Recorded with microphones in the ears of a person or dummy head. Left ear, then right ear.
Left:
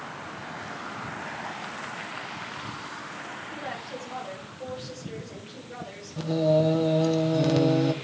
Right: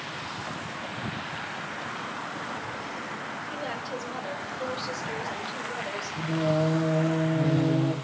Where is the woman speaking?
30° right (ahead or behind), 4.5 m.